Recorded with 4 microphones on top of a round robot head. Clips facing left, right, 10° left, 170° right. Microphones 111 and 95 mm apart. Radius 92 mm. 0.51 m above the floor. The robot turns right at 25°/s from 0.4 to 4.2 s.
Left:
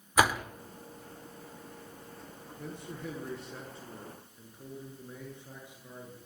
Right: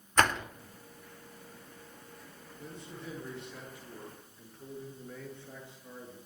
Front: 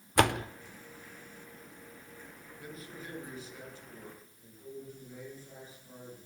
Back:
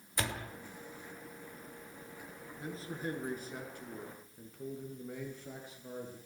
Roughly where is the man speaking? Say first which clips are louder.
Left 4 dB, back 5 dB; behind left.